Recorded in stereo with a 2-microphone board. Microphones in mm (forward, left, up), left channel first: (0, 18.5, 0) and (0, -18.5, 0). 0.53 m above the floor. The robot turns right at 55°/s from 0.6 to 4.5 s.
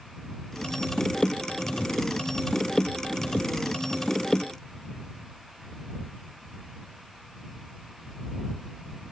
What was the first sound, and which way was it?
Only background noise.